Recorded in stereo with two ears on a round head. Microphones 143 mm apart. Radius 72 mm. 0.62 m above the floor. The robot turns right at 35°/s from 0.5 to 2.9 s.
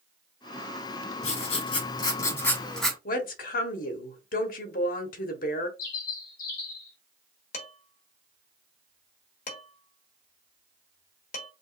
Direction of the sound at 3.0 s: 60° left (ahead or behind).